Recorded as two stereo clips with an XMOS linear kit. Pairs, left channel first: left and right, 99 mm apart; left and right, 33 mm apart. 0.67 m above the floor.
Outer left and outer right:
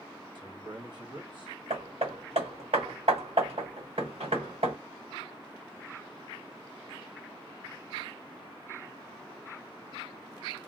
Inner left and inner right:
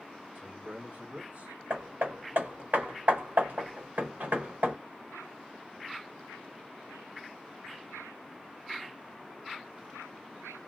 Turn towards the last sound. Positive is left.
turn(degrees=-85)